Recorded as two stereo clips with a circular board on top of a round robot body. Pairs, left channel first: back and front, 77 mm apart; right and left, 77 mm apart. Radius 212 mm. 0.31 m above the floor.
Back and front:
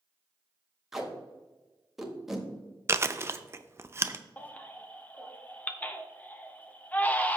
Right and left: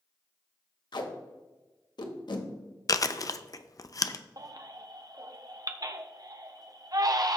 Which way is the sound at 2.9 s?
55° right.